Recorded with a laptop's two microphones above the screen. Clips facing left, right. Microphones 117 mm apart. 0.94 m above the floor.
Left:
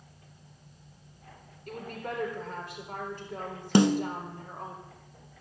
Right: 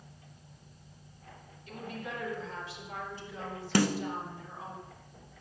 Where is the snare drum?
20° left (ahead or behind), 0.6 m.